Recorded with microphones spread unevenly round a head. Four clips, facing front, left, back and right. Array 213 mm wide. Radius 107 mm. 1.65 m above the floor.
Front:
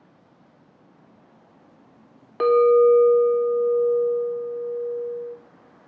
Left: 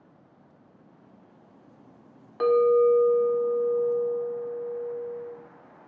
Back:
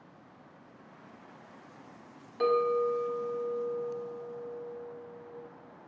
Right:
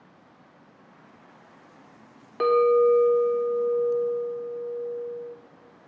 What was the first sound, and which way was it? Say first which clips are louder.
A clink: right 1 dB, front 12 dB; 35° right.